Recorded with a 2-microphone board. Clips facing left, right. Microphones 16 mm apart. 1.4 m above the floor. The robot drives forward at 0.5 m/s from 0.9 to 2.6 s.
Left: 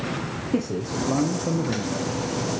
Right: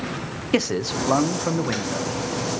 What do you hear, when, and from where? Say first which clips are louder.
0.5 s a man speaking: right 4 dB; 65° right (ahead or behind), 0.7 m; by 2.2 s 35° right (ahead or behind), 1.1 m